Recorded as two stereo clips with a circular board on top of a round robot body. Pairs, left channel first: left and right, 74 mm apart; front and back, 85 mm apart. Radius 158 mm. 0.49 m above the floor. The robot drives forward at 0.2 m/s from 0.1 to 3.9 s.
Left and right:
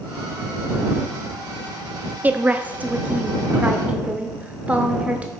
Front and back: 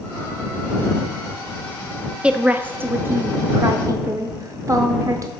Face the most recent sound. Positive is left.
turn(degrees=-155)